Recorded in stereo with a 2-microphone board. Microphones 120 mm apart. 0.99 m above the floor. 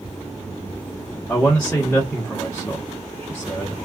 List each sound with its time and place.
1.3 s a man speaking: 15° left (ahead or behind), 1.0 m